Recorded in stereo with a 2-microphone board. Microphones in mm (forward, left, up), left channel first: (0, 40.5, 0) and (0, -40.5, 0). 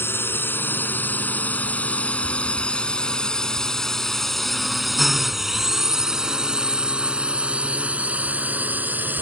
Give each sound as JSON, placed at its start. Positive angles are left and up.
{"t": 0.0, "sound": "a drone", "side_deg": 30}